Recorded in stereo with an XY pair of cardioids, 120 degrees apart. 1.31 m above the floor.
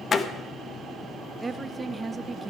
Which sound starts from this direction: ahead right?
A woman speaking, at 1.4 s.